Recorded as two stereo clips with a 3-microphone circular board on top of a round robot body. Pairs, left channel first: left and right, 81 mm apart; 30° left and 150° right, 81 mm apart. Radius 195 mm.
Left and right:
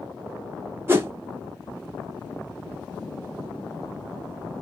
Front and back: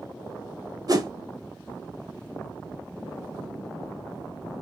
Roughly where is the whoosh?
Behind right.